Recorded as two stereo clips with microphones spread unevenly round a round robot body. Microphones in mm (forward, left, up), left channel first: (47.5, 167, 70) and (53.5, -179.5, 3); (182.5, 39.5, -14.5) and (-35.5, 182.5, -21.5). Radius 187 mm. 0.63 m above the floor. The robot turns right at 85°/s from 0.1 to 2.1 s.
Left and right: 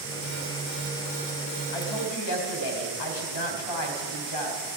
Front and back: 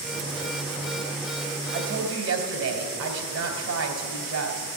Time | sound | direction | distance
1.7 | a woman speaking | 100° left | 2.5 m